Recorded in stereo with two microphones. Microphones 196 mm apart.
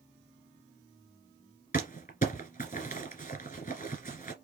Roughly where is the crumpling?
Left.